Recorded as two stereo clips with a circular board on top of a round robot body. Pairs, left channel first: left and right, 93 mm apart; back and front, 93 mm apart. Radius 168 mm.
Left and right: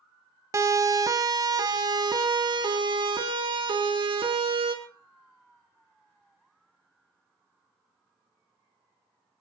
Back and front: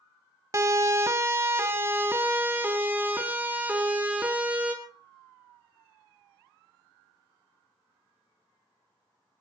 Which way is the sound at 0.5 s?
45° right.